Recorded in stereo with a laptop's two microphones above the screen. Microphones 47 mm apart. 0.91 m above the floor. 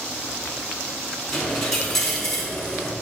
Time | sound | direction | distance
1.3 | a dropped coin | 5° left (ahead or behind) | 2.5 m